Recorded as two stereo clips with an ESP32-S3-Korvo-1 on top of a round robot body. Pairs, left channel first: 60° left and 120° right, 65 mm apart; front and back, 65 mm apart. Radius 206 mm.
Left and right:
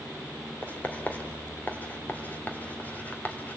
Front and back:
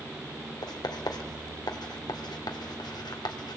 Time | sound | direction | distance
0.6 | writing | 5° right | 2.5 m